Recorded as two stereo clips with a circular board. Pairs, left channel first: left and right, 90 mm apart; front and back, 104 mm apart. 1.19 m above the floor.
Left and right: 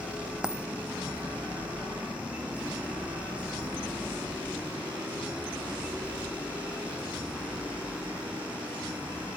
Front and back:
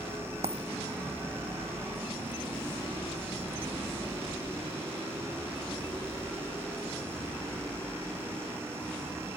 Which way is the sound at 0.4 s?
170° right.